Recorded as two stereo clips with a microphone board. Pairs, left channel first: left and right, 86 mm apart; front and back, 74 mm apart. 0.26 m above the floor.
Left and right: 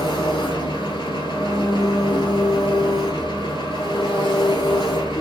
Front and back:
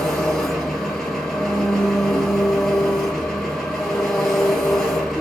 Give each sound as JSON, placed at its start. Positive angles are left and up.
{"t": 0.0, "sound": "an engine running", "azimuth_deg": 85, "distance_m": 1.4}